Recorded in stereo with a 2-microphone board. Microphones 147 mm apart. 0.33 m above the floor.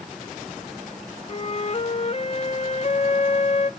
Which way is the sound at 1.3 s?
45° left (ahead or behind).